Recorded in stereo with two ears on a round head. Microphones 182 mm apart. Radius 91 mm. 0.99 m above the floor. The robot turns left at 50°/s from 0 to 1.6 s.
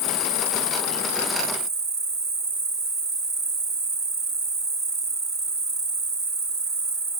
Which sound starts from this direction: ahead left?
An insect, at 0.0 s.